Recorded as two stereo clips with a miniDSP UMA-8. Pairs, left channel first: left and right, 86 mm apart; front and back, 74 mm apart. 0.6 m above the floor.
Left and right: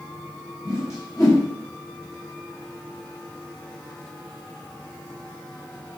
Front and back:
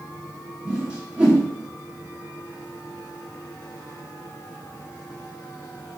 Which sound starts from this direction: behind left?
A whoosh, at 0.7 s.